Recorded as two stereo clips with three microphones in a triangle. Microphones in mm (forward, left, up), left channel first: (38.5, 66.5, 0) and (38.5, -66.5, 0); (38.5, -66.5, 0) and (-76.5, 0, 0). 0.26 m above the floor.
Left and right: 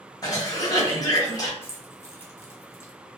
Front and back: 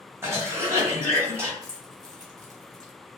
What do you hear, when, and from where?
0.2 s a cough: 105° left, 1.1 m
1.6 s keys jangling: 135° left, 0.7 m